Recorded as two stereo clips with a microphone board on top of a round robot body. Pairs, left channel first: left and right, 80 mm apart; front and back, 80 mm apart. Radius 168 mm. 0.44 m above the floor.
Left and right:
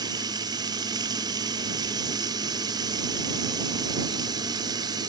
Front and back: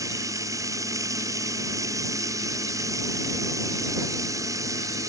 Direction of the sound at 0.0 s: 130° right.